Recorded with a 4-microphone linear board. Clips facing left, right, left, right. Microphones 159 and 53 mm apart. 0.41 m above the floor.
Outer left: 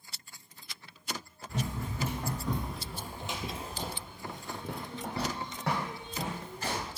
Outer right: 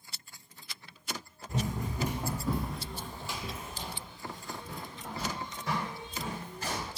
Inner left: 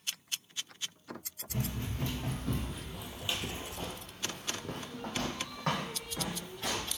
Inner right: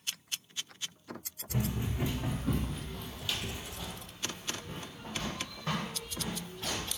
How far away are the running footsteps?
About 1.4 m.